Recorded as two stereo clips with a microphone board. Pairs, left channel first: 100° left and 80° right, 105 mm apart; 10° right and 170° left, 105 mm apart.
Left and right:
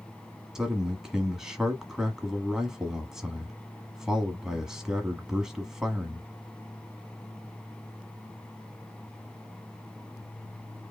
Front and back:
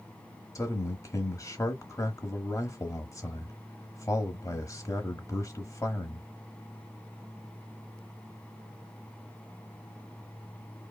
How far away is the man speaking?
About 1.1 m.